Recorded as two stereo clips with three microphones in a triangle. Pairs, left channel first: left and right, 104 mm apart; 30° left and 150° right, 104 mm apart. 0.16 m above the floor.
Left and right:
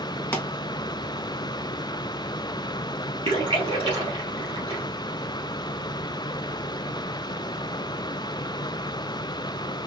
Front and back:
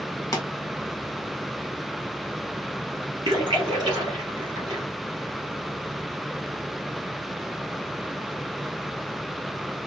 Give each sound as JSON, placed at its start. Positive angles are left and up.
{"t": 0.3, "sound": "a pop", "azimuth_deg": 35, "distance_m": 1.0}
{"t": 3.2, "sound": "a splash", "azimuth_deg": -110, "distance_m": 2.5}